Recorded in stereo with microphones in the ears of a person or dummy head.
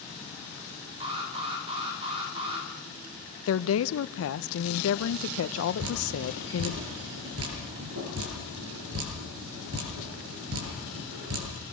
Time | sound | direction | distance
1.0 | an alarm | 30° right (ahead or behind) | 9 m
3.5 | a woman speaking | 85° left | 0.9 m
5.8 | dripping | 80° right | 8 m